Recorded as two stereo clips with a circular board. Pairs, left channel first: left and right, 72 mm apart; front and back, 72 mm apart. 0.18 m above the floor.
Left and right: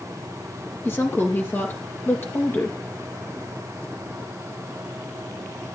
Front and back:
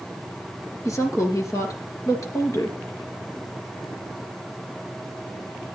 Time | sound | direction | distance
0.8 | a woman speaking | 35° left | 2.5 m